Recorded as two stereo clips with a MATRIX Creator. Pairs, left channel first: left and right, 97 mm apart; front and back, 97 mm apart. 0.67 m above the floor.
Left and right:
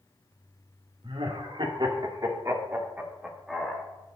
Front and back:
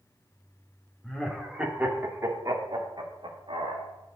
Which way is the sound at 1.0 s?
85° right.